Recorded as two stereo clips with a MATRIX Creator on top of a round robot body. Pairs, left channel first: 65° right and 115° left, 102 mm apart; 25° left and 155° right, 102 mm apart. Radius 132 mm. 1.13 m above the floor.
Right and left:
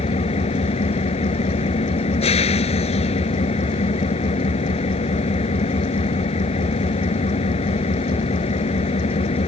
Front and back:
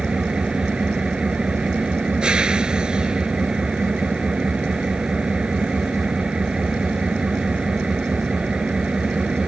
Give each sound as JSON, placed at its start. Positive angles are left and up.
{"t": 0.0, "sound": "an engine running", "azimuth_deg": -75}